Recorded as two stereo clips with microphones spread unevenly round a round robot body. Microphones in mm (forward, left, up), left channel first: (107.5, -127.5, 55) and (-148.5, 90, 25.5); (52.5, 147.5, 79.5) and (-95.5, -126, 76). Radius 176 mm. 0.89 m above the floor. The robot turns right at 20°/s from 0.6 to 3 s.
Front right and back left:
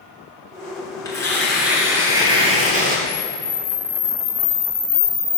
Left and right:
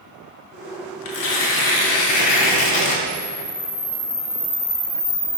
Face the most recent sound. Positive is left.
turn(degrees=0)